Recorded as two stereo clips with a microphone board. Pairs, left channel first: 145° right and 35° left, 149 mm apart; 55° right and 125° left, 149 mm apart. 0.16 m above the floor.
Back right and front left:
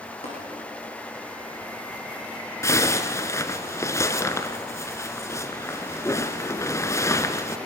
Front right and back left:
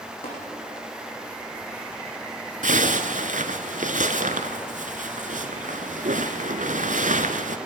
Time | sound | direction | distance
0.2 | tapping | 105° right | 7.5 m
2.6 | a zipper | 145° left | 1.2 m